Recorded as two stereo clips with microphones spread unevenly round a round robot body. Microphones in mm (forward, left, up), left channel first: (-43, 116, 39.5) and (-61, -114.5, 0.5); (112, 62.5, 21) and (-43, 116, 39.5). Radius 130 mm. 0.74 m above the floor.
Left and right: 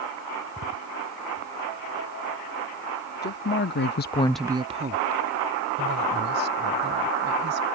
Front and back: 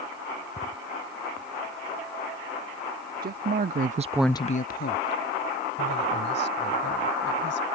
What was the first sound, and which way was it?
A woman speaking, 135° left.